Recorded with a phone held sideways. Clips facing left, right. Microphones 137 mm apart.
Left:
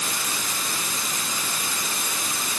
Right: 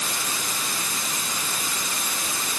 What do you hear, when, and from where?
Only background noise.